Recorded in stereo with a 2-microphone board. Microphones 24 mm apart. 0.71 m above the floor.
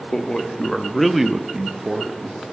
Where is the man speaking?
25° left (ahead or behind), 1.0 m; by 2.4 s 40° right (ahead or behind), 0.9 m.